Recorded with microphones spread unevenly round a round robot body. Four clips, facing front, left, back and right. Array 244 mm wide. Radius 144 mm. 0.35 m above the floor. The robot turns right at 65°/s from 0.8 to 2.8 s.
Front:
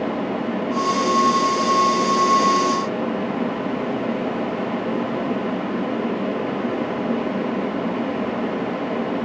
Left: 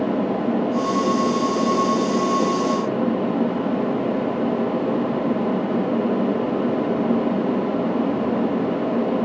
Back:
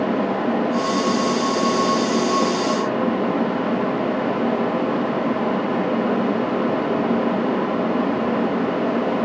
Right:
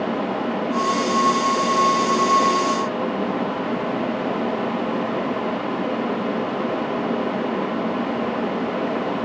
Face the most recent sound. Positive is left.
No sound to turn to.